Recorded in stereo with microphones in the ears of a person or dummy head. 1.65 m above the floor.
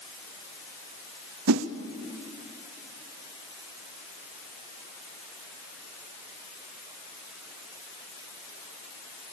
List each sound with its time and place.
1.5 s a whoosh: 80° right, 0.9 m